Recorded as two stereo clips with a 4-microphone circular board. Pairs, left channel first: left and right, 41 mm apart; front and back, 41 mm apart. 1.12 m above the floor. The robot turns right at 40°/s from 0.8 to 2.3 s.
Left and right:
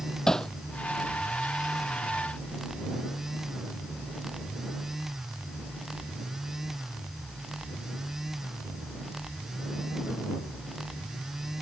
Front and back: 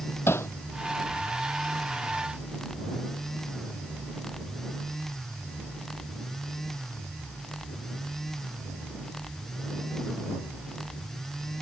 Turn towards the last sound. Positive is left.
turn(degrees=70)